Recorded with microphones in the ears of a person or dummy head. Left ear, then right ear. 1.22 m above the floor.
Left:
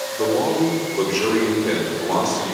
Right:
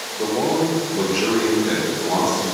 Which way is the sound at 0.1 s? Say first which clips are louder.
Left 1 dB; 85° left.